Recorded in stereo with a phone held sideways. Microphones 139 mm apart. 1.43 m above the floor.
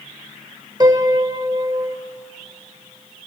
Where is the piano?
30° right (ahead or behind), 1.5 m.